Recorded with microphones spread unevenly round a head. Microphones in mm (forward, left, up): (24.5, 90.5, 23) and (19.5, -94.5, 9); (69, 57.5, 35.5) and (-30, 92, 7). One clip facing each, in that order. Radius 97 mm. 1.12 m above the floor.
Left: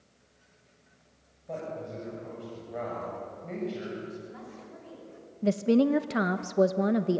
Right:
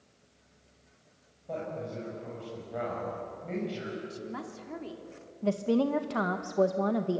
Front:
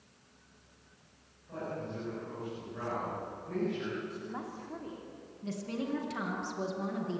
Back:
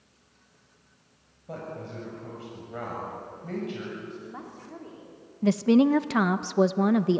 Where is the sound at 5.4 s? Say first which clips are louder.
Left 4 dB, back 17 dB; 160° left, 0.7 m.